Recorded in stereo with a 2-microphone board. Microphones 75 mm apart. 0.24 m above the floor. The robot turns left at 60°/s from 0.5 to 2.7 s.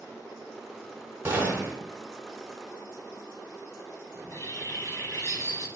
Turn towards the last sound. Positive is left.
turn(degrees=45)  # may be behind; listen again after turning